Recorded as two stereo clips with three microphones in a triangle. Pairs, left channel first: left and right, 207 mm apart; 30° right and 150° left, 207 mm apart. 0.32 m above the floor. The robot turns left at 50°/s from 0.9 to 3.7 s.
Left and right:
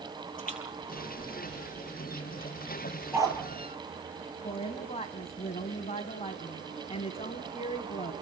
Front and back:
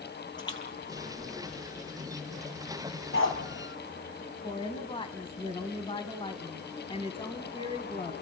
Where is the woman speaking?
30° left, 2.5 m.